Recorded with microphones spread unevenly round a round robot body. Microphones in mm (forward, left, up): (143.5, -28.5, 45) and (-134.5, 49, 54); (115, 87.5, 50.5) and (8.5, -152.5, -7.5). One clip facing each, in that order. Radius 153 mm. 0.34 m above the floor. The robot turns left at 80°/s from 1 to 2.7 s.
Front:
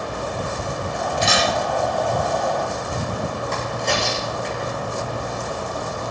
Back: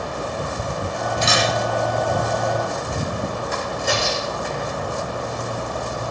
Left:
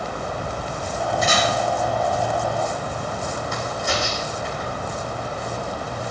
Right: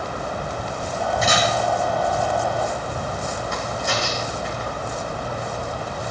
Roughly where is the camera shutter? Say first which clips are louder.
Even, even; behind.